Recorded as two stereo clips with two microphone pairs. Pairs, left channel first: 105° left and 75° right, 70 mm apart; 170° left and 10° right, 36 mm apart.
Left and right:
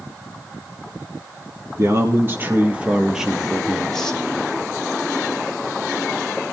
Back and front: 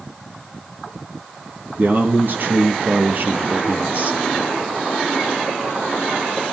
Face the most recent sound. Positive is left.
turn(degrees=30)